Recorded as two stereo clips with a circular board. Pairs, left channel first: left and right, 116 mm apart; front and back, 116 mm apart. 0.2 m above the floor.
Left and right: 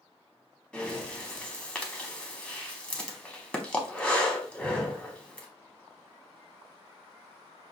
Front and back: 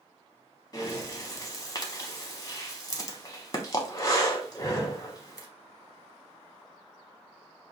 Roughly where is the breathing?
Ahead.